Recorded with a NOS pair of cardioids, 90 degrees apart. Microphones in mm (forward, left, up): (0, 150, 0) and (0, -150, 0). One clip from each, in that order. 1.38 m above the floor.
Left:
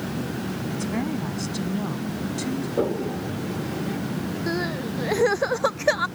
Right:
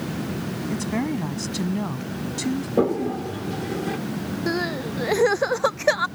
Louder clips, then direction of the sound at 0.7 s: Right 3 dB; 35° right.